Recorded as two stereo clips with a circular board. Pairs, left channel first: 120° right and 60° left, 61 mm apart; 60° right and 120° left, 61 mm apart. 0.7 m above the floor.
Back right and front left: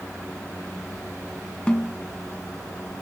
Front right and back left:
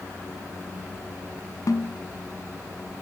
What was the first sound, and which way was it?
A snare drum, 50° right.